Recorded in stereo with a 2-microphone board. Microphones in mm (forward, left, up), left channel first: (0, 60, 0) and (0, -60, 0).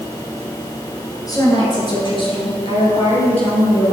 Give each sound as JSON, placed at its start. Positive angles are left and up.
{"t": 1.3, "sound": "a woman speaking", "side_deg": 30, "distance_m": 2.5}